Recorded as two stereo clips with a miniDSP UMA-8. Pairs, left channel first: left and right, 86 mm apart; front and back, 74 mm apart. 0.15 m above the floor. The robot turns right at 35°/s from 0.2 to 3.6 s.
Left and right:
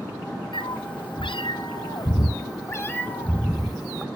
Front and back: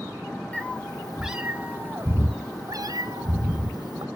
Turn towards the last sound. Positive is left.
turn(degrees=175)